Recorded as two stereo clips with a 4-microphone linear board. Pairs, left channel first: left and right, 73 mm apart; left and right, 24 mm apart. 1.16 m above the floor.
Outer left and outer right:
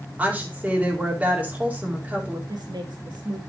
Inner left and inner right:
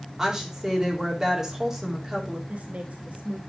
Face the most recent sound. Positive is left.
turn(degrees=-75)  # may be behind; listen again after turning